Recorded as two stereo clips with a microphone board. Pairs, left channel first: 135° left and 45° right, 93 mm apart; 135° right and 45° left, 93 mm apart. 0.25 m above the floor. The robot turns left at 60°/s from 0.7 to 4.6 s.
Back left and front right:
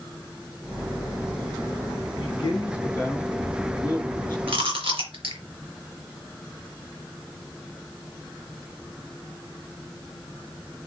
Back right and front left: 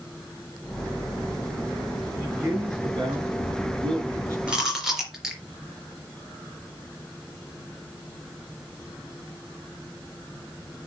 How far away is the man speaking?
About 4 m.